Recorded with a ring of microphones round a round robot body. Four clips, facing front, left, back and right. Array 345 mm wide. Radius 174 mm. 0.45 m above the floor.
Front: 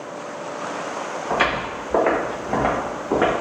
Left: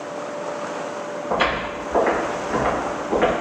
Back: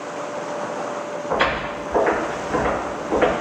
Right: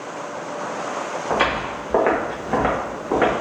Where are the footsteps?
75° right, 2.0 m; by 3.3 s 40° right, 2.5 m.